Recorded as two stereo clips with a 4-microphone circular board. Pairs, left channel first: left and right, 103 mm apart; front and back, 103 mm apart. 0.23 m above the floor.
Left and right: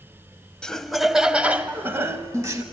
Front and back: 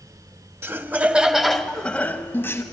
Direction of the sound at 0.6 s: 160° left.